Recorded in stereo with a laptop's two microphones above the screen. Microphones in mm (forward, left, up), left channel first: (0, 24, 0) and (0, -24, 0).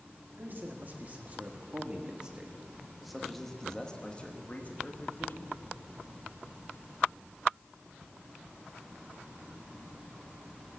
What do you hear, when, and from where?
0.4 s a man speaking: 45° right (ahead or behind), 2 m; by 5.5 s 50° left (ahead or behind), 1.7 m